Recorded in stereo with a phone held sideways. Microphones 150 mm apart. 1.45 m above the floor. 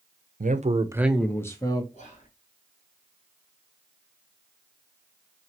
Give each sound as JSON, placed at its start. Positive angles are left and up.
{"t": 0.4, "sound": "a man speaking", "side_deg": -65, "distance_m": 0.7}
{"t": 1.9, "sound": "whispering", "side_deg": 50, "distance_m": 2.0}